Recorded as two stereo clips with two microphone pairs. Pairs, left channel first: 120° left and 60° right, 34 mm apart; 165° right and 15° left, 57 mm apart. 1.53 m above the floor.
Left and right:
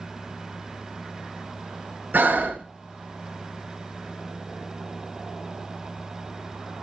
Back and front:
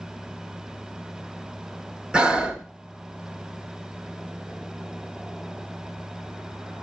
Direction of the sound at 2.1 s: 55° right.